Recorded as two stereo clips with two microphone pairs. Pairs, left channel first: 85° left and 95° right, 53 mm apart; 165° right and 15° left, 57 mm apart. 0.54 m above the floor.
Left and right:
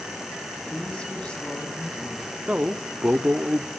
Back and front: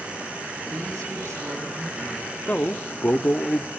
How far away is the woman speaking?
About 3 m.